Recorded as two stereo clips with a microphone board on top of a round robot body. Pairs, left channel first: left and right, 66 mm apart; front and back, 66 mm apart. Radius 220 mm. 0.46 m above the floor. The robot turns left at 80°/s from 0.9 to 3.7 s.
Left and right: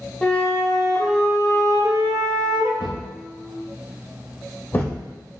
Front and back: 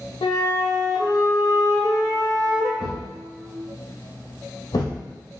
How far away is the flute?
About 0.6 m.